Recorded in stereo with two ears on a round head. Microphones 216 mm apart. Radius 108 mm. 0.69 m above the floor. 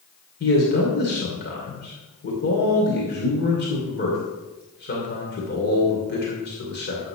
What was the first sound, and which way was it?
A man speaking, 45° left (ahead or behind).